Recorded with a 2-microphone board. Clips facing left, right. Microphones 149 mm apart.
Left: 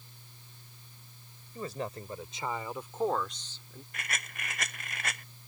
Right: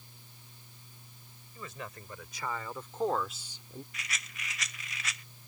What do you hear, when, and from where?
1.6 s a man speaking: 40° left (ahead or behind); by 3.8 s 25° right (ahead or behind)
3.9 s a rattle: 55° left (ahead or behind)